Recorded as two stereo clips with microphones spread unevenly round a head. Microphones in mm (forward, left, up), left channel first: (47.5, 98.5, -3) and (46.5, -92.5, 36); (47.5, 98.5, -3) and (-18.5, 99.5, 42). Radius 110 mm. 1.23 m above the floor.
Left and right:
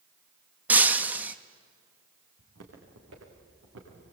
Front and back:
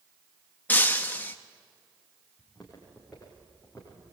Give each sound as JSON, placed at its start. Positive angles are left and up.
{"t": 0.7, "sound": "breaking glass", "azimuth_deg": -135, "distance_m": 0.5}
{"t": 2.4, "sound": "footsteps", "azimuth_deg": -95, "distance_m": 6.5}